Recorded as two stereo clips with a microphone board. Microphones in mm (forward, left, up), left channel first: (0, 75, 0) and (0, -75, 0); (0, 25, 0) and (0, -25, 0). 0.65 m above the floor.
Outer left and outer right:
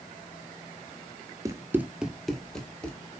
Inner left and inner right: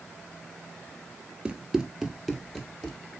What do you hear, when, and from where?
1.4 s running footsteps: 20° right (ahead or behind), 0.6 m; by 3.0 s 10° left (ahead or behind), 1.4 m